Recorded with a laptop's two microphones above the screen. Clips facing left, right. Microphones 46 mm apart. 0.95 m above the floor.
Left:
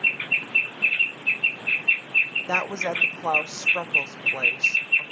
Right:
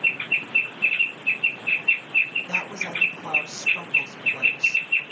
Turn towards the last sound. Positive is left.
turn(degrees=80)